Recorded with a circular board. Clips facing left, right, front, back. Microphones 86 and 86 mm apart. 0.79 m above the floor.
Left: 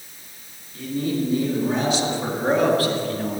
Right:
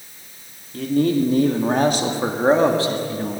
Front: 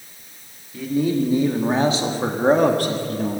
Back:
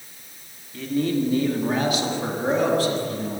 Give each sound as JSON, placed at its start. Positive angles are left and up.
{"t": 0.7, "sound": "a man speaking", "azimuth_deg": -85, "distance_m": 1.6}